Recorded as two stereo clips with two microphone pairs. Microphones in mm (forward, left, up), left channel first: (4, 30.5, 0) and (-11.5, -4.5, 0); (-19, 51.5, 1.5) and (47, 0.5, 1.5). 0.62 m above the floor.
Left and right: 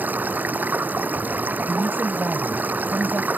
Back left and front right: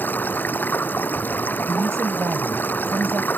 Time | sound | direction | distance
0.0 | running water | 150° right | ?
1.7 | a woman speaking | 95° right | ?